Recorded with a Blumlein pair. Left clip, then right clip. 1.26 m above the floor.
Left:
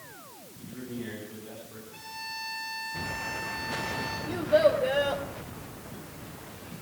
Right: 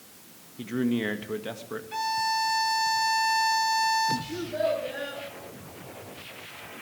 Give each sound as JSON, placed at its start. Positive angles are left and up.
{"t": 0.6, "sound": "a man speaking", "azimuth_deg": -55, "distance_m": 1.9}
{"t": 1.9, "sound": "a violin", "azimuth_deg": -40, "distance_m": 2.5}
{"t": 4.3, "sound": "a child speaking", "azimuth_deg": 35, "distance_m": 3.5}